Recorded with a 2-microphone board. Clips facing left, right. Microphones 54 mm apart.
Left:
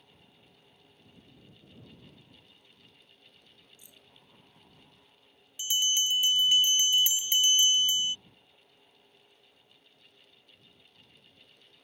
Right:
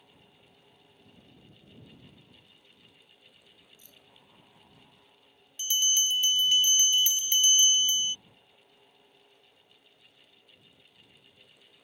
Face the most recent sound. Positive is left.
turn(degrees=10)  # may be behind; listen again after turning